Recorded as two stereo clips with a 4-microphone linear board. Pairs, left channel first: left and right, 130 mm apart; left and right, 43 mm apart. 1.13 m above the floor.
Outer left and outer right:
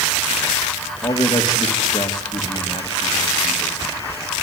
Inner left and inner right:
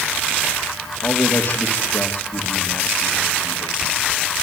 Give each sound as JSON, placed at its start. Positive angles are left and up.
{"t": 1.0, "sound": "a man speaking", "side_deg": 35, "distance_m": 2.5}